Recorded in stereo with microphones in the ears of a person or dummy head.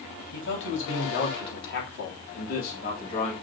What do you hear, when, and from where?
0.3 s a man speaking: 75° left (ahead or behind), 3 m; by 3.4 s 50° left (ahead or behind), 3.5 m